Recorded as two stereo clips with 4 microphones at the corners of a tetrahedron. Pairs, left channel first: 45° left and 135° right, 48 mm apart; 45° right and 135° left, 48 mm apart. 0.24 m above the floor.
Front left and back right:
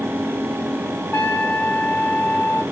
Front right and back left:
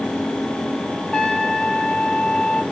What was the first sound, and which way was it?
A trumpet, 15° left.